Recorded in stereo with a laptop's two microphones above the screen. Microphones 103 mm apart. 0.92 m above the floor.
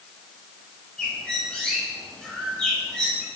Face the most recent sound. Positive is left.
turn(degrees=5)  # may be behind; listen again after turning